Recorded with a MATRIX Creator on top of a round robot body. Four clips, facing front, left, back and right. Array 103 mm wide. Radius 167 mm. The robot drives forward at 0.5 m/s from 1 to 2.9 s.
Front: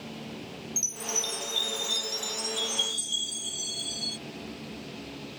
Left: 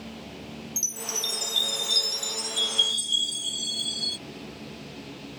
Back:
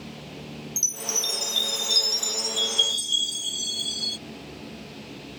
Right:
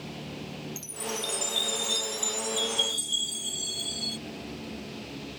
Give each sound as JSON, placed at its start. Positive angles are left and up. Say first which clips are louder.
{"t": 0.8, "sound": "a chime", "louder": "right 2 dB, back 1 dB", "azimuth_deg": 140}